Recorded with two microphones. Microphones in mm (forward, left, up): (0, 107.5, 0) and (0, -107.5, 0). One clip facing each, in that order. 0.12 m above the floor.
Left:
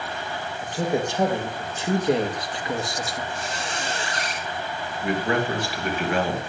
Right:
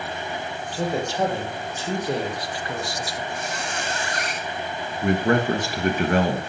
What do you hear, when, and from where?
0.6 s a man speaking: 15° left (ahead or behind), 3.5 m; by 3.2 s 25° left (ahead or behind), 1.9 m
3.3 s a squeak: 30° left (ahead or behind), 2.5 m
5.0 s a man speaking: 45° right (ahead or behind), 2.5 m